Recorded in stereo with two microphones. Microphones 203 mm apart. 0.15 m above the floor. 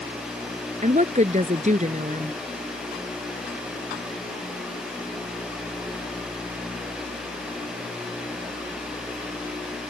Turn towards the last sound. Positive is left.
turn(degrees=-40)  # may be behind; listen again after turning